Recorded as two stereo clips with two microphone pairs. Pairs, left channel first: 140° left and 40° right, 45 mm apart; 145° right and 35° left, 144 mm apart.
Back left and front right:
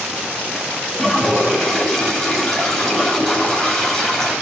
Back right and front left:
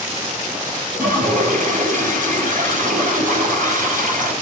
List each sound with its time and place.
0.9 s a toilet flushing: 55° left, 6.5 m